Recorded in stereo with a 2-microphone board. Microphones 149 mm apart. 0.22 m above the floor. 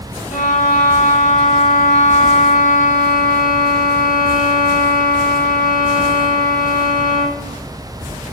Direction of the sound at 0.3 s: 75° left (ahead or behind).